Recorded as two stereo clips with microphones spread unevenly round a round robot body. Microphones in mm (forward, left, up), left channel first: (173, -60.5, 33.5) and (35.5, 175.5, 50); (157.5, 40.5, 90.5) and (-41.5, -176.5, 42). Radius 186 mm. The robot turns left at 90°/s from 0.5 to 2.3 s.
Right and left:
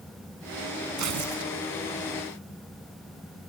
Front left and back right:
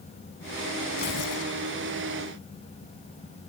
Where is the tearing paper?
115° left; by 1.5 s 65° left.